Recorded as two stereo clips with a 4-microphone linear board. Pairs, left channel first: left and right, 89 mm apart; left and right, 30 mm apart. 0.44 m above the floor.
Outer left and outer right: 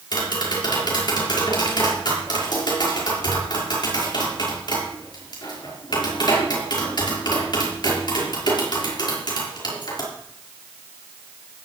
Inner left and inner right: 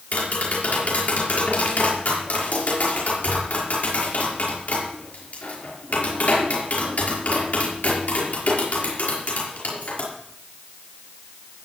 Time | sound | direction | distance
0.1 | tapping | 55° left (ahead or behind) | 6 m